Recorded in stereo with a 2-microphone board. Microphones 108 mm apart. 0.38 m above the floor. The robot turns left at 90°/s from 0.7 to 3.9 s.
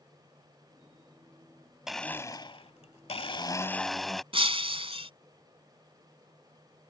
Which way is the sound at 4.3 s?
60° right (ahead or behind).